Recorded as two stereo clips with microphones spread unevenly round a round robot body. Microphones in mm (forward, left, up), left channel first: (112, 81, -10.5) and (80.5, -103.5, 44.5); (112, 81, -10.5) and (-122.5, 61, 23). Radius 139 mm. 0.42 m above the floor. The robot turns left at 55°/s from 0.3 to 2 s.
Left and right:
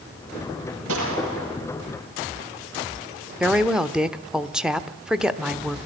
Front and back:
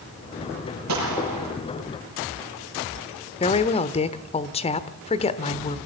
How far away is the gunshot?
About 6 m.